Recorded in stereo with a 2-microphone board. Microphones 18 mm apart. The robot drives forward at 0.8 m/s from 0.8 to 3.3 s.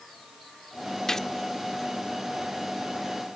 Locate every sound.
1.1 s a gunshot: 25° left (ahead or behind); by 1.3 s 30° left (ahead or behind)